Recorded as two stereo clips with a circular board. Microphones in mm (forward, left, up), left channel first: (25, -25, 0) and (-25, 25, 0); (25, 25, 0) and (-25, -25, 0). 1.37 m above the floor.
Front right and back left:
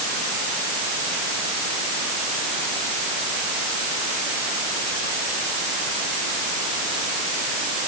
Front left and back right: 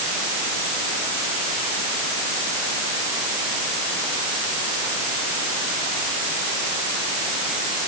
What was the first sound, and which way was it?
Only background noise.